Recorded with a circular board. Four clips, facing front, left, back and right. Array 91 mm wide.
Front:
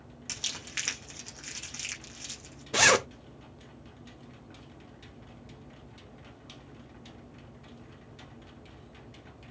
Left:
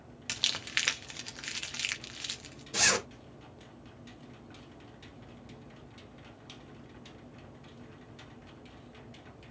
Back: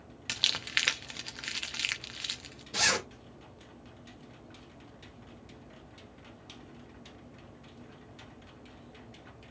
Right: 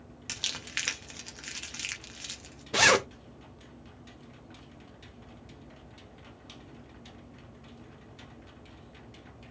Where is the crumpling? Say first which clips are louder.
Left 3 dB, back 7 dB; 160° left, 0.6 m.